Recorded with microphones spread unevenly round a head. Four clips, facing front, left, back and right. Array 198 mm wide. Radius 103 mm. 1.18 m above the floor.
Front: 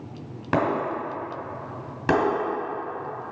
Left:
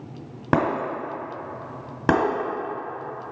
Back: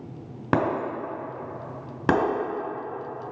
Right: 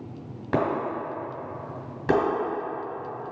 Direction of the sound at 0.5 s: 120° left.